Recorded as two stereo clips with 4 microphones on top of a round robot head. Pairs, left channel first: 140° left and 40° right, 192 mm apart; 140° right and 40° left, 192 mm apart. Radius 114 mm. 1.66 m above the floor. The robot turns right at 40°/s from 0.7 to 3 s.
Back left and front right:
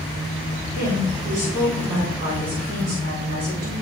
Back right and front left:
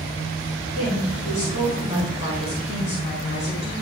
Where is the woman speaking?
170° right, 4.5 m; by 3.7 s 80° right, 4.5 m.